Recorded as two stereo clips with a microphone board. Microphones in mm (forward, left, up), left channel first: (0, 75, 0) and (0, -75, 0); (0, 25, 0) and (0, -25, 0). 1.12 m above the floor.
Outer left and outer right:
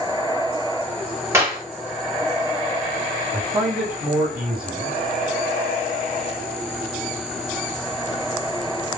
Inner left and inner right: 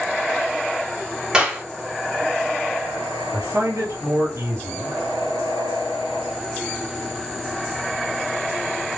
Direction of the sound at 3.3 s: 70° right (ahead or behind).